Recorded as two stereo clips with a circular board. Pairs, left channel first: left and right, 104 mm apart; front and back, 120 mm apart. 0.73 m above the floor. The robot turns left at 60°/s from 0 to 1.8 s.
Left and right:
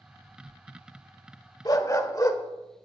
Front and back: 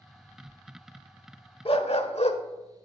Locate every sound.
1.6 s a dog barking: 40° left, 1.0 m; by 2.4 s 30° left, 1.0 m